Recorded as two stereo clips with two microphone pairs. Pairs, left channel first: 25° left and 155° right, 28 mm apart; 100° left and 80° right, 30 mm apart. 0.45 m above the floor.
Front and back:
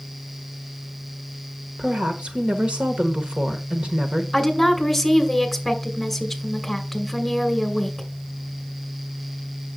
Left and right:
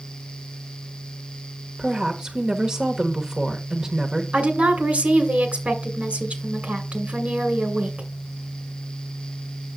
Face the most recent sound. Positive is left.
turn(degrees=-60)